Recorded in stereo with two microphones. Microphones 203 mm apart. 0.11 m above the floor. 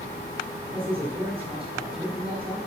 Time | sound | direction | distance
0.7 | a man speaking | 25° right (ahead or behind) | 5.5 m